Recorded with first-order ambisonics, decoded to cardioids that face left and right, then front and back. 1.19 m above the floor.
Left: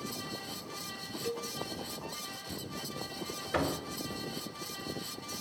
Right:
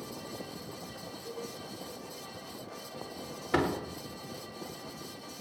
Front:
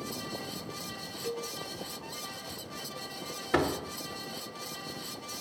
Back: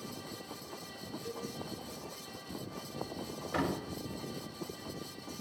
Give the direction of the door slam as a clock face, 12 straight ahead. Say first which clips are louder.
Right 3 dB, front 6 dB; 1 o'clock.